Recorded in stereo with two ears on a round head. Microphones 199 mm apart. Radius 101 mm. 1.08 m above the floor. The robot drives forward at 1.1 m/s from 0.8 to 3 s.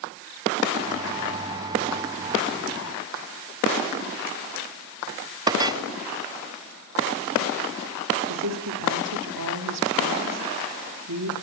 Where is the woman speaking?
80° right, 3 m.